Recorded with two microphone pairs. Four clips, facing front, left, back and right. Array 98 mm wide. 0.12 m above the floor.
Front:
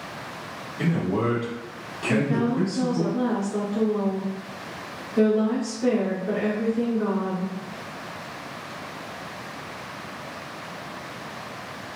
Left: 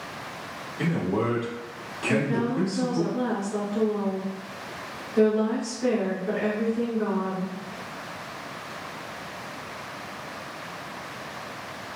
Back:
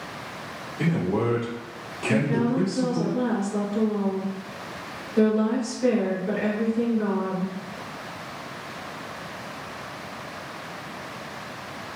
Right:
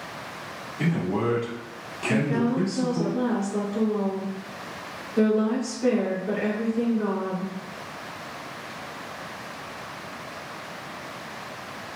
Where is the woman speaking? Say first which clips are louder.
Right 1 dB, even; 50° left, 1.8 m.